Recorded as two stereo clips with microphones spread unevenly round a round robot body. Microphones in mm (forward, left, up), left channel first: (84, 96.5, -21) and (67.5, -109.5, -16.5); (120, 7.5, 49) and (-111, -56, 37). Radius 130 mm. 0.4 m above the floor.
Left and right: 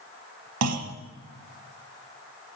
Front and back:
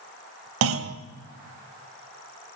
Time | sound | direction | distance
0.6 | a clunk | 130° right | 1.1 m